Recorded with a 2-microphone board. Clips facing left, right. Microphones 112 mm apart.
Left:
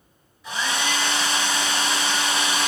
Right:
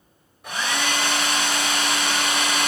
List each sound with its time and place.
0.4 s a hair dryer: 60° right (ahead or behind), 3.5 m